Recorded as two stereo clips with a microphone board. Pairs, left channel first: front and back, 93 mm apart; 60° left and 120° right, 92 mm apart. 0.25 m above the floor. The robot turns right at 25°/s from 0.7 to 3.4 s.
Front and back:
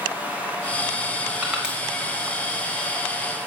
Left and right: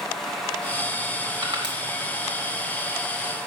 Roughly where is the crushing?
Right.